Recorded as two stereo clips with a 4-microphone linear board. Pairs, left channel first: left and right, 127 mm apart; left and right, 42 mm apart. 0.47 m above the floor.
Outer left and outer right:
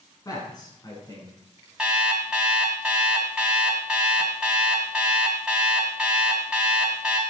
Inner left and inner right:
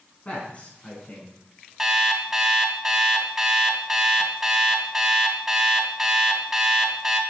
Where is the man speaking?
30° left (ahead or behind), 4.5 m; by 1.3 s 35° left (ahead or behind), 5.5 m.